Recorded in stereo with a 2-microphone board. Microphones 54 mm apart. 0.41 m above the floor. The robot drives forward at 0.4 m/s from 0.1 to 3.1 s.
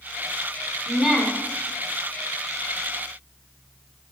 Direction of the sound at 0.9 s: 10° right (ahead or behind).